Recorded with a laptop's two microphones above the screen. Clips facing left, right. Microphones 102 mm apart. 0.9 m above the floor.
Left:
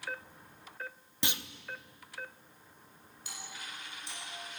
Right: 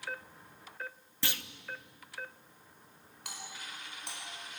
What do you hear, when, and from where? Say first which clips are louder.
1.2 s a clunk: left 2 dB; 20° left (ahead or behind), 0.6 m
3.2 s a doorbell: even; 65° right (ahead or behind), 5 m